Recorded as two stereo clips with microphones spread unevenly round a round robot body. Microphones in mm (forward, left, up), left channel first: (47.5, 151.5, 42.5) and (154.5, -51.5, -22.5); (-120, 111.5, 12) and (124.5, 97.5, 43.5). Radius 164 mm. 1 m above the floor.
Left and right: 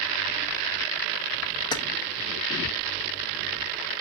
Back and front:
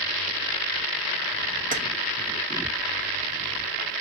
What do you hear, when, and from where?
1.7 s keys jangling: 50° left, 0.7 m